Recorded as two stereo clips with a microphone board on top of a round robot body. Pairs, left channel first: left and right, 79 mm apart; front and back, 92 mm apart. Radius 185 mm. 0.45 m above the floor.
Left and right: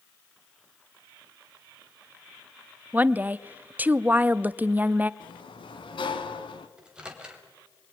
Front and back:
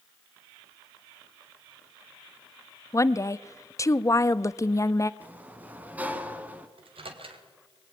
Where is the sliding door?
105° left, 1.6 m.